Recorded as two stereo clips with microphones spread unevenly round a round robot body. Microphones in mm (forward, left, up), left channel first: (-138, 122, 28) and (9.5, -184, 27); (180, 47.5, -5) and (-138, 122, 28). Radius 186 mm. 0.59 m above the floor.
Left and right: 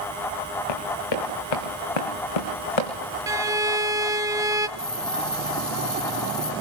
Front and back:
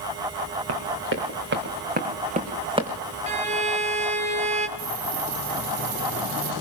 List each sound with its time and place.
0.7 s running footsteps: 120° left, 4 m; by 2.9 s 90° left, 3.5 m
3.3 s a violin: 135° right, 0.8 m
4.8 s a hiss: 155° right, 2.5 m